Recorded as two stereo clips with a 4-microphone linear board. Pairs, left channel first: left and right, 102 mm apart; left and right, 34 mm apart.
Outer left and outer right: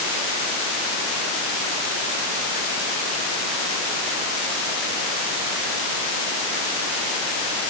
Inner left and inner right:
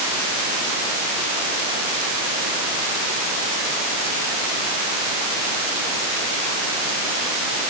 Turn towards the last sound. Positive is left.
No sound to turn to.